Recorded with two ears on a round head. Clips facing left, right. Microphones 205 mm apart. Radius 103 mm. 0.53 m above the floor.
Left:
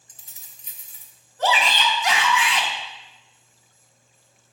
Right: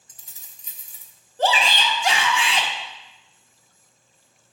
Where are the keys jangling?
70° right (ahead or behind), 1.1 m.